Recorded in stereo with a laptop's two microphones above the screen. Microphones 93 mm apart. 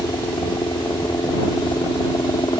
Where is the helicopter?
50° left (ahead or behind).